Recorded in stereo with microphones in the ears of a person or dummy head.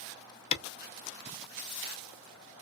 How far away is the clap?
About 0.6 m.